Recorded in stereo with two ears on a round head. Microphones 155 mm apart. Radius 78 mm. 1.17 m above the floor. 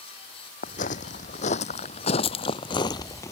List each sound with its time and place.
0.6 s footsteps: 45° left (ahead or behind); by 3.3 s 15° left (ahead or behind)